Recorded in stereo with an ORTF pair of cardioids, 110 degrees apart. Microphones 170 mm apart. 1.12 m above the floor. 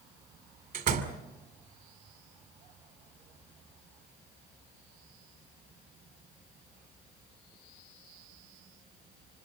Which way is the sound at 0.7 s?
60° right.